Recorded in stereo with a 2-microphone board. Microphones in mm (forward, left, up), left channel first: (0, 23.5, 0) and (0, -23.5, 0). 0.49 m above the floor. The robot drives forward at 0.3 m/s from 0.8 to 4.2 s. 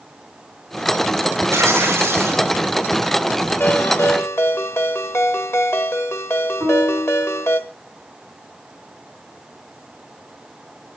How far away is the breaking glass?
No breaking glass in this recording.